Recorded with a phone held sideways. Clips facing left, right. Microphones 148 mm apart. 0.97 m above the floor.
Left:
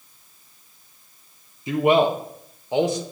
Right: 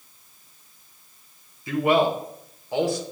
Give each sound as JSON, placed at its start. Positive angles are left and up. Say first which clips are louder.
{"t": 1.7, "sound": "a man speaking", "louder": "left 2 dB", "side_deg": 20, "distance_m": 0.8}